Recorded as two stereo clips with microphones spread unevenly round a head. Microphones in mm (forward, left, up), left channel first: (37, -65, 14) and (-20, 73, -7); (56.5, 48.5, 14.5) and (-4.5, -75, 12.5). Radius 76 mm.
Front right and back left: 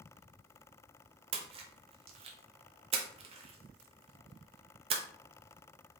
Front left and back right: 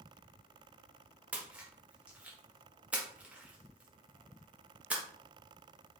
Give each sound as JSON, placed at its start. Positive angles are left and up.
{"t": 1.3, "sound": "a splash", "azimuth_deg": 165, "distance_m": 0.6}